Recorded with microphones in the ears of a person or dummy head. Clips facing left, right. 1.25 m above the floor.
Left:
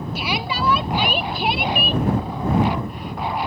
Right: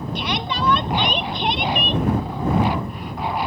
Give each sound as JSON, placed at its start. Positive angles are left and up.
{"t": 0.1, "sound": "a shout", "side_deg": 5}